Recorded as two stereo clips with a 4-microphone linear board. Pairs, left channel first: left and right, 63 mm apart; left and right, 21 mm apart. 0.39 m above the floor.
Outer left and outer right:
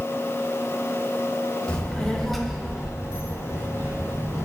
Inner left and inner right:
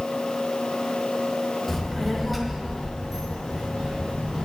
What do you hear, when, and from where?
1.7 s a child speaking: 15° left (ahead or behind), 1.0 m; by 4.5 s 30° right (ahead or behind), 1.3 m